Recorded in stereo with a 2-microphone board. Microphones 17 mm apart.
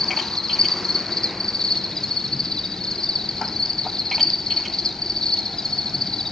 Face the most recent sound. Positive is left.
turn(degrees=50)  # may be behind; listen again after turning